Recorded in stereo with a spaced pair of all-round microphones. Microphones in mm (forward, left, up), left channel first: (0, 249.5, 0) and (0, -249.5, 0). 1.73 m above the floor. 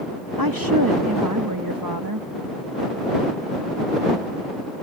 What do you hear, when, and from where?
0.4 s a woman speaking: 40° right (ahead or behind)